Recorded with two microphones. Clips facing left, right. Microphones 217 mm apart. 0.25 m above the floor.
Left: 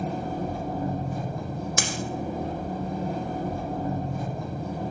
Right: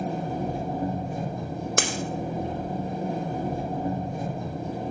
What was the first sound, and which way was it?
An engine running, 25° right (ahead or behind).